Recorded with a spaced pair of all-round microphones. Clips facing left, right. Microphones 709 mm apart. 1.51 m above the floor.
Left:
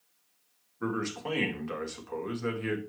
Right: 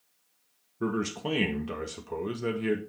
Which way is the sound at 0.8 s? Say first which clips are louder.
Right 3 dB; 65° right (ahead or behind).